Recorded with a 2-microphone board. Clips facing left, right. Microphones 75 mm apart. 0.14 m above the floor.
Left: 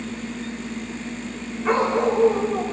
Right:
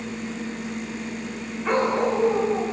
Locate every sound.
1.6 s a dog barking: 5° left (ahead or behind), 6.5 m